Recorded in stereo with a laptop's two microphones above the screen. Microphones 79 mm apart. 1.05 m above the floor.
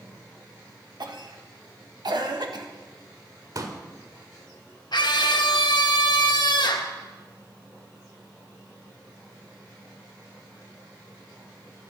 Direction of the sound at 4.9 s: 65° left (ahead or behind).